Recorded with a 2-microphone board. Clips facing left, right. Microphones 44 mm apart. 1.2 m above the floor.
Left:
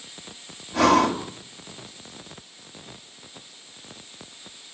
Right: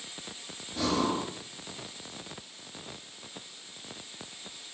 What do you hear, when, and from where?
0.7 s breathing: 70° left (ahead or behind), 3 m